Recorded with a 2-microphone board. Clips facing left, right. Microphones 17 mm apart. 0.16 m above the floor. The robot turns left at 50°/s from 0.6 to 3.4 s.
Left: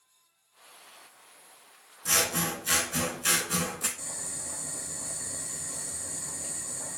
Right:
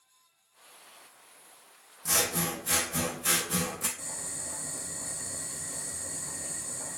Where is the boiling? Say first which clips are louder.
Left 1 dB; 55° left (ahead or behind), 1.0 m.